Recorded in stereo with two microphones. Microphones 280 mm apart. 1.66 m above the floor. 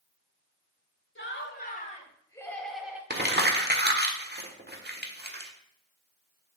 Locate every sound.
1.1 s laughter: 45° left (ahead or behind), 1.9 m; by 3.0 s 5° right (ahead or behind), 1.9 m
3.1 s crumpling: 40° right (ahead or behind), 1.2 m